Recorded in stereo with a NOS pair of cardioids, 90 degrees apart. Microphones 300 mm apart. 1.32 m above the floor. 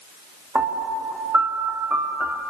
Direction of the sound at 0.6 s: 5° right.